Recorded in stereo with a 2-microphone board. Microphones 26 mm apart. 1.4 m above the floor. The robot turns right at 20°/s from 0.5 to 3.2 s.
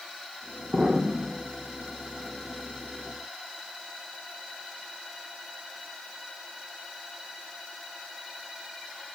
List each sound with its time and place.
0.7 s an explosion: 45° right (ahead or behind), 0.9 m; by 1.4 s 50° right (ahead or behind), 0.9 m